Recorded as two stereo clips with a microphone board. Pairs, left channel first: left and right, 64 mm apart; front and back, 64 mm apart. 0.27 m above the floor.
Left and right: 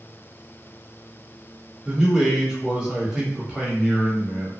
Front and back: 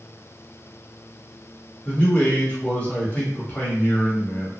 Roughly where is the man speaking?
Ahead right.